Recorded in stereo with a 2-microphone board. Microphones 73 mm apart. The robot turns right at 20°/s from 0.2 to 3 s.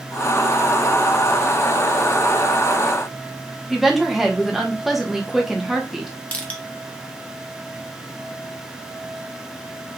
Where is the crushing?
20° left (ahead or behind), 0.9 m.